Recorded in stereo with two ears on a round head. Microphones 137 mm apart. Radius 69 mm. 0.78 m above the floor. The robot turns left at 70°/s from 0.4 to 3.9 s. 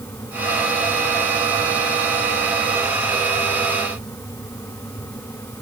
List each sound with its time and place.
Only background noise.